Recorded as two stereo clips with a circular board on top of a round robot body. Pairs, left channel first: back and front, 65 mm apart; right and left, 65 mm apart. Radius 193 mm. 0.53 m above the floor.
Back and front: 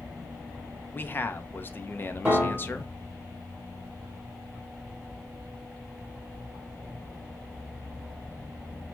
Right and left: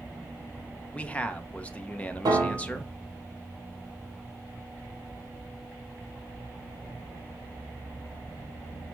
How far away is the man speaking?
About 0.7 m.